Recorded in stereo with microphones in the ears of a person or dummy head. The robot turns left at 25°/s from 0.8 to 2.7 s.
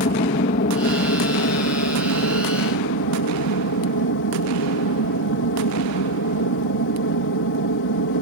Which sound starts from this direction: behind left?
An aircraft, at 0.0 s.